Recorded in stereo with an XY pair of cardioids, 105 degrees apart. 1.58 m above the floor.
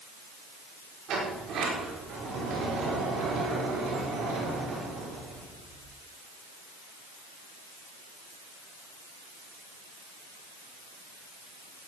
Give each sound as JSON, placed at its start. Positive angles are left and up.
{"t": 1.1, "sound": "a sliding door", "azimuth_deg": -70, "distance_m": 5.5}